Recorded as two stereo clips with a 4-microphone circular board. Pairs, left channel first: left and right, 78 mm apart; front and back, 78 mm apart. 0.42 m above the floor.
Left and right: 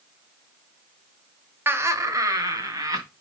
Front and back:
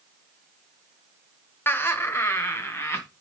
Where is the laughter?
50° right, 1.0 m; by 3.0 s 55° right, 3 m.